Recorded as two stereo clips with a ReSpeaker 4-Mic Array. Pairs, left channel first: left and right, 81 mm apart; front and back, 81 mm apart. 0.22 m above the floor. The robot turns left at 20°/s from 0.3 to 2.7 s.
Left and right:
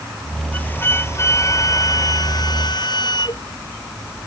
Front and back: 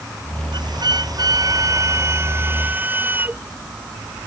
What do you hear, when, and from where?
0.5 s a flute: 160° left; by 3.4 s 115° left